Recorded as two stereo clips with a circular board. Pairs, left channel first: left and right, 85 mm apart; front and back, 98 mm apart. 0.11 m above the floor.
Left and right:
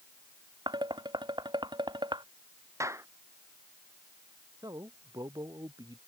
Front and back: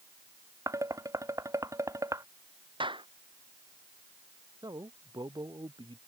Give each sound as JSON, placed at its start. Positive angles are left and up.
{"t": 0.7, "sound": "dishes clattering", "azimuth_deg": -120}
{"t": 2.8, "sound": "a clap", "azimuth_deg": -145}
{"t": 4.6, "sound": "a man speaking", "azimuth_deg": -130}